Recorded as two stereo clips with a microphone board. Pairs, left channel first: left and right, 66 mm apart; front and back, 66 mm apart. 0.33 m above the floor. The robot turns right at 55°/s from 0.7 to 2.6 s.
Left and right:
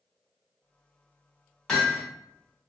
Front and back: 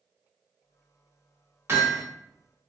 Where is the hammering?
170° left, 1.2 m; by 2.0 s 175° right, 1.2 m.